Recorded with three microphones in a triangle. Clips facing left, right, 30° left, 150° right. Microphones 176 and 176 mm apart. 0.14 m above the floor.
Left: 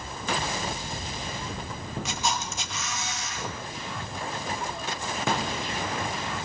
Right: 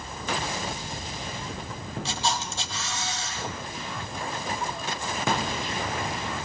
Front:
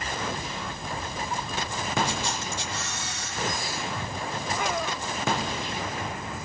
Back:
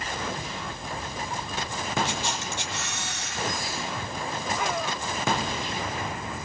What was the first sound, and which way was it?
A camera shutter, 150° right.